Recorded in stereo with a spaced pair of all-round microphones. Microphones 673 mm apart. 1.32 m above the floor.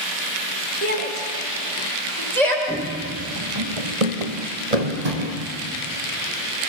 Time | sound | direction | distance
0.8 | a shout | 60° right (ahead or behind) | 4.5 m
2.7 | running footsteps | 10° right (ahead or behind) | 2.0 m